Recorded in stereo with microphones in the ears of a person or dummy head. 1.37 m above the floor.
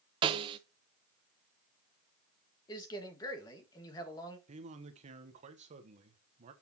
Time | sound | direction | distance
0.2 | a snare drum | 30° right (ahead or behind) | 0.7 m
2.7 | a man speaking | 25° left (ahead or behind) | 2.0 m
4.5 | a man speaking | 40° right (ahead or behind) | 1.2 m